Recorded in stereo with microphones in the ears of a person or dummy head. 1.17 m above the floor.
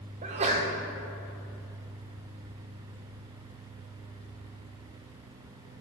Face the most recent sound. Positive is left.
turn(degrees=-35)  # may be behind; listen again after turning